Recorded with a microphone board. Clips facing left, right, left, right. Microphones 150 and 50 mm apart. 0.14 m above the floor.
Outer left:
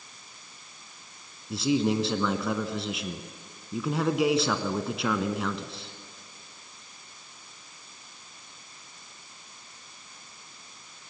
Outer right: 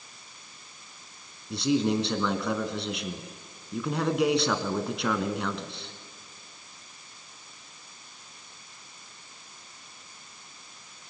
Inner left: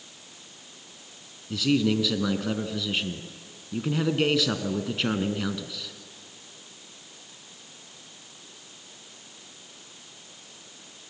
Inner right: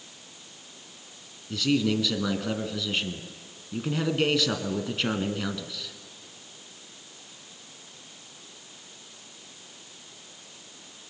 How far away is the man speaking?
About 1.1 m.